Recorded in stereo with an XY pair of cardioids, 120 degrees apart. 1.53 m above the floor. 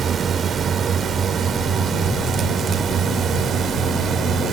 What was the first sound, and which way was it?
A drone, 45° right.